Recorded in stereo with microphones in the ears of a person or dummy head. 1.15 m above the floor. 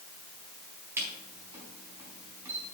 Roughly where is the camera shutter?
Centre.